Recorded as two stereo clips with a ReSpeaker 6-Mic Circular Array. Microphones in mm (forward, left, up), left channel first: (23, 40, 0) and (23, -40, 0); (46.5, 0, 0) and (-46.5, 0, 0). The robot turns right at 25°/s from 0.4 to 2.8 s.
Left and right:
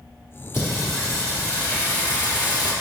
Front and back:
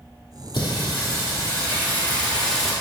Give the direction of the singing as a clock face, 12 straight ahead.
11 o'clock.